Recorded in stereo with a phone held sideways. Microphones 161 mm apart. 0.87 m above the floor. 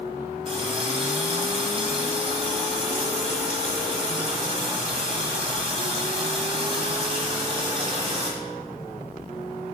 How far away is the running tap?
About 1.2 m.